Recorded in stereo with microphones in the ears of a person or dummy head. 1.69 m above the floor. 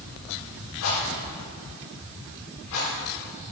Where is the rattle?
75° left (ahead or behind), 6.5 m.